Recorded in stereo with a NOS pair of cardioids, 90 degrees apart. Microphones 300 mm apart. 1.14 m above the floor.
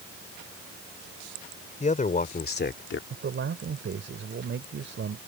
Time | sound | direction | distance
1.8 | a man speaking | 25° left | ?
3.1 | a man speaking | 45° right | ?